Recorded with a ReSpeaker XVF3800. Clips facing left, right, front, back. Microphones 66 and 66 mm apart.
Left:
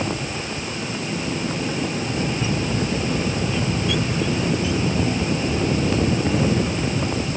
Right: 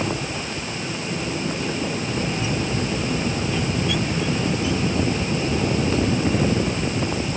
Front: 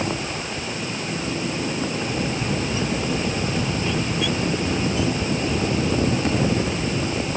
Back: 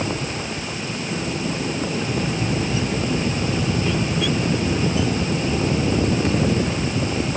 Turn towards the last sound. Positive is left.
No sound to turn to.